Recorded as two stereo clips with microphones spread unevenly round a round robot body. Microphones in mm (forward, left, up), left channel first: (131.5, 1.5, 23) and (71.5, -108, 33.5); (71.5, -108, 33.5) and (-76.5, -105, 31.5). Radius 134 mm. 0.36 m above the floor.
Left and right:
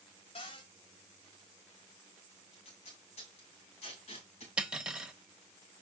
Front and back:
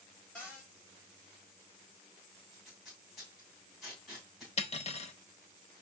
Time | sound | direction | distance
0.3 | a cupboard door | 80° left | 2.5 m
2.5 | tape being pulled | 90° left | 3 m
4.6 | cutlery clinking | 35° right | 1.2 m